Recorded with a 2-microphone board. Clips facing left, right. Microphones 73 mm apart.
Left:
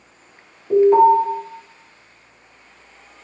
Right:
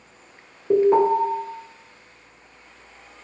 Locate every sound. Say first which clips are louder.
0.7 s an alarm: left 5 dB; 25° right (ahead or behind), 1.6 m